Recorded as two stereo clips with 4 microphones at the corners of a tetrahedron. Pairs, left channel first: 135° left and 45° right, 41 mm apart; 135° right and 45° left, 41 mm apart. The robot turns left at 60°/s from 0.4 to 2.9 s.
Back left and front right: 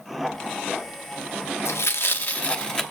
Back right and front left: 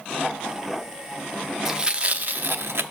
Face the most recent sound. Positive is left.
turn(degrees=50)